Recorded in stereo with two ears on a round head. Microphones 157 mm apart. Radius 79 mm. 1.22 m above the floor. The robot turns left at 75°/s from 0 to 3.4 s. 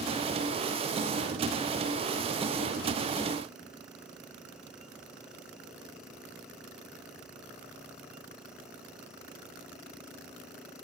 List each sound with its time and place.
Only background noise.